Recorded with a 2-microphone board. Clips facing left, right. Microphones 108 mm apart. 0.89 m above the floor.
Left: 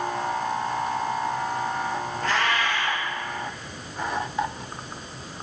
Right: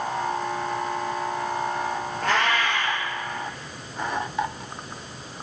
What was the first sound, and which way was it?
A cat meowing, 65° right (ahead or behind).